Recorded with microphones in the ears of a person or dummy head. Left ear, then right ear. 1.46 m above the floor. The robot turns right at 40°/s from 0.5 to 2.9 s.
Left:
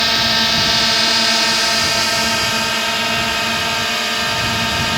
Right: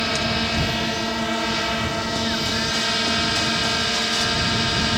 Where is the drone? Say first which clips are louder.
Left 8 dB; 50° left; by 5.0 s 145° left.